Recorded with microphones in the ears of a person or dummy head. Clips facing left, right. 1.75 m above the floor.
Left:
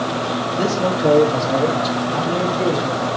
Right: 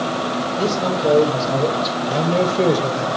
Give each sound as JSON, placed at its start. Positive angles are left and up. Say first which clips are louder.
{"t": 0.6, "sound": "a man speaking", "louder": "left 2 dB", "side_deg": 25, "distance_m": 1.7}
{"t": 2.1, "sound": "a man speaking", "louder": "right 2 dB", "side_deg": -45, "distance_m": 2.0}